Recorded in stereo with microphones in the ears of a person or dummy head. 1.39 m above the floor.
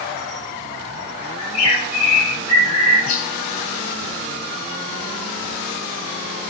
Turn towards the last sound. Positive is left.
turn(degrees=80)